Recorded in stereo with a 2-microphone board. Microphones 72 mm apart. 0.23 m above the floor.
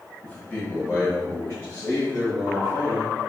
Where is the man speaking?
20° left (ahead or behind), 1.1 m; by 3.1 s 45° left (ahead or behind), 2 m.